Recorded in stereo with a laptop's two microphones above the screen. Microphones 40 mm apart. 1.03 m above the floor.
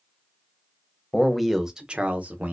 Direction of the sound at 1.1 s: 10° left (ahead or behind).